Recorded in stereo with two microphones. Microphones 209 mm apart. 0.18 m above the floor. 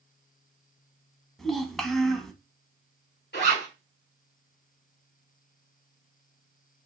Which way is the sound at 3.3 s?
55° left (ahead or behind).